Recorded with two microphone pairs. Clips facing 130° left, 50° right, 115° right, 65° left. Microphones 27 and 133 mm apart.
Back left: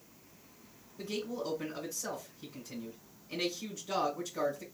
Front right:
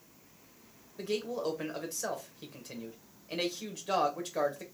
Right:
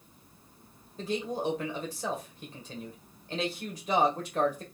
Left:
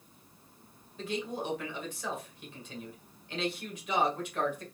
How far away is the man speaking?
About 1.5 m.